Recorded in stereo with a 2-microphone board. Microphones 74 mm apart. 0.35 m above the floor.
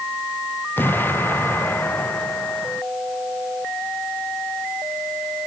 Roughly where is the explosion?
Left.